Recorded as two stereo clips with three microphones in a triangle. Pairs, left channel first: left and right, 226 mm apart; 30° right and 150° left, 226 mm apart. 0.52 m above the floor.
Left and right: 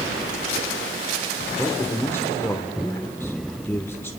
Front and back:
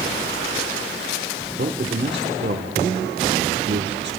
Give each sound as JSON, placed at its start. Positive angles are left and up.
{"t": 1.6, "sound": "a man speaking", "azimuth_deg": 165, "distance_m": 1.3}